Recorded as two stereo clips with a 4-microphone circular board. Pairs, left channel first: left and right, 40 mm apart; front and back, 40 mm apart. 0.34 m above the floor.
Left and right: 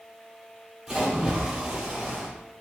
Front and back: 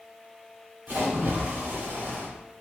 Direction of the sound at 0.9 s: 175° right.